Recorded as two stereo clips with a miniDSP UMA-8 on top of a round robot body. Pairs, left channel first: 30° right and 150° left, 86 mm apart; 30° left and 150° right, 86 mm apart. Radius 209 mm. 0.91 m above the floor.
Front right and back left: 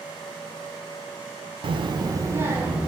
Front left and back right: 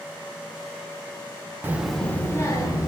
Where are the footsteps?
I don't hear footsteps.